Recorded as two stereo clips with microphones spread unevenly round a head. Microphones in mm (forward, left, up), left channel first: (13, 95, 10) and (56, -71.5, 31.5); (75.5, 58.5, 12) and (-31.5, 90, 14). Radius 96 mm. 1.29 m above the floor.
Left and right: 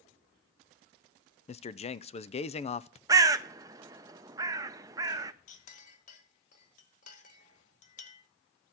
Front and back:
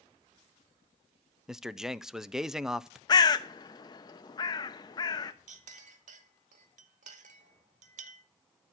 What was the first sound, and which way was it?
A man speaking, 80° left.